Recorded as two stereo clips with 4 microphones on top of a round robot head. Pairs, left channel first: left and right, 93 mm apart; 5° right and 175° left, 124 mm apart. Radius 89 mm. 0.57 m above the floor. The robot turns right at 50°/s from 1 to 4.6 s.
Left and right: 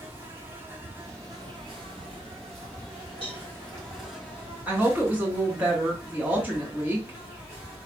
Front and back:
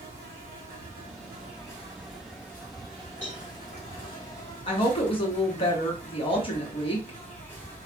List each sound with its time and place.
0.0 s an insect: 155° right, 1.8 m; by 7.9 s 25° left, 1.8 m
3.2 s a cowbell: 80° right, 3 m; by 3.4 s 70° right, 3 m
4.7 s a woman speaking: 25° right, 1.2 m